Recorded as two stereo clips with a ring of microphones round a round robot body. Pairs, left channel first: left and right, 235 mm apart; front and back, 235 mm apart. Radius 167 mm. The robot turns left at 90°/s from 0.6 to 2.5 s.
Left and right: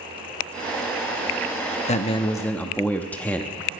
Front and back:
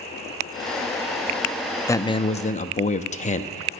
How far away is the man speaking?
About 0.7 m.